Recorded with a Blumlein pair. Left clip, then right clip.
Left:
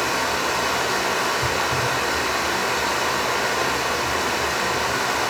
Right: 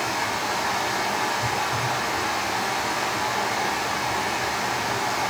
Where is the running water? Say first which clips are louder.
Left 3 dB; 65° left, 3 m.